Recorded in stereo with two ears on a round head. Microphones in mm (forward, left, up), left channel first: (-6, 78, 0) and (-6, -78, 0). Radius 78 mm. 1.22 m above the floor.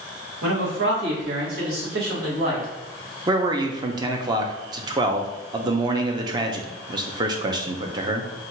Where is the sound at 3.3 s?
25° right (ahead or behind), 0.6 m.